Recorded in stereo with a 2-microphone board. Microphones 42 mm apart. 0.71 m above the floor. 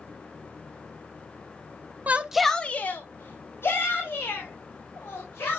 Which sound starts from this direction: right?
A shout, at 2.1 s.